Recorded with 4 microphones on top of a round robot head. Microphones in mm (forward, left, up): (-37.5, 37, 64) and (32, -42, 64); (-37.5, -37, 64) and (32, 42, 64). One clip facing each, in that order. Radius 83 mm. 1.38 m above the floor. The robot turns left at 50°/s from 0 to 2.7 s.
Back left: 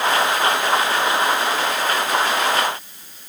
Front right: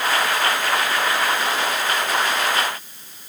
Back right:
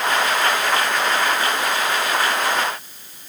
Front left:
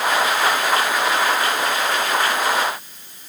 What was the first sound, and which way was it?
Only background noise.